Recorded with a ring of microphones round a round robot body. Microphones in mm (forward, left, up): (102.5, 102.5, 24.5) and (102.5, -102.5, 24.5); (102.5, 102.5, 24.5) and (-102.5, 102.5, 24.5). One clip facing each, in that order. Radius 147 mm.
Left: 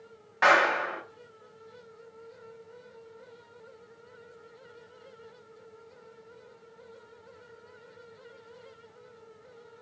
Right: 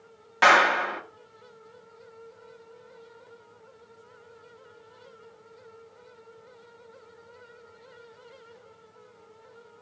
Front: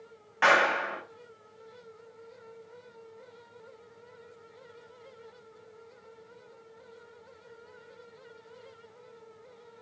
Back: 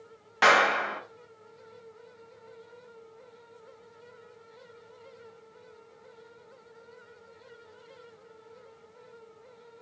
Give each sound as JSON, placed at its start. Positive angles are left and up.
{"t": 0.4, "sound": "a clap", "azimuth_deg": -140, "distance_m": 0.6}